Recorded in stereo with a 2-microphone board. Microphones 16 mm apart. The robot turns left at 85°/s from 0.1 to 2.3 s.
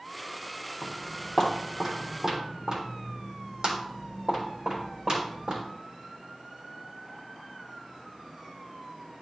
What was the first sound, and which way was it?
Footsteps, 60° left (ahead or behind).